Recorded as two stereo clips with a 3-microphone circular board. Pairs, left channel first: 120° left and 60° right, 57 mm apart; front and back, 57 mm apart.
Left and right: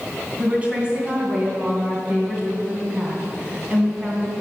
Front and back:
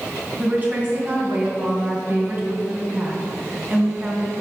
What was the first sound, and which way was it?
A woman speaking, 125° right.